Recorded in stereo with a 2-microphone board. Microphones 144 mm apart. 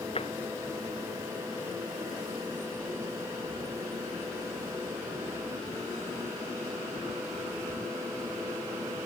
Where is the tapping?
40° left (ahead or behind).